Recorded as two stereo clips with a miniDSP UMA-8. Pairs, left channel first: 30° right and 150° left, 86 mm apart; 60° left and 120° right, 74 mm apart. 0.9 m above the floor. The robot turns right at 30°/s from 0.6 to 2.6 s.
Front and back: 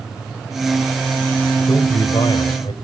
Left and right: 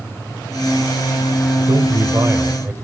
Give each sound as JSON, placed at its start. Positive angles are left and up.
{"t": 1.7, "sound": "a man speaking", "azimuth_deg": -70, "distance_m": 3.5}